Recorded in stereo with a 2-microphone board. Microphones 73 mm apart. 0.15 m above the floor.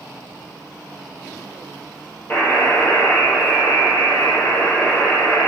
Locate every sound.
2.3 s a buzzer: 30° left (ahead or behind), 3 m